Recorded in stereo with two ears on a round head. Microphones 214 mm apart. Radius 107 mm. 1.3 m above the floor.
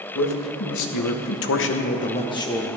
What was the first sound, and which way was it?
A man speaking, 70° left (ahead or behind).